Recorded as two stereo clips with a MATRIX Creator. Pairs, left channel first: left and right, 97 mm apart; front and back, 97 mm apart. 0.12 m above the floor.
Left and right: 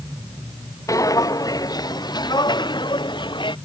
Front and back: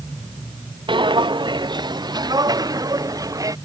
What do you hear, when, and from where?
0.9 s footsteps: 145° left; by 3.5 s 130° left